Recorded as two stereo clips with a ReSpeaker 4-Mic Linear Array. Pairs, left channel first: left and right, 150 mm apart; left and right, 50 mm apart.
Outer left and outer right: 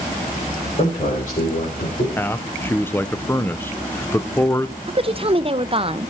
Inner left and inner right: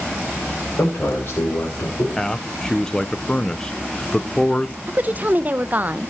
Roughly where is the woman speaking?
Right.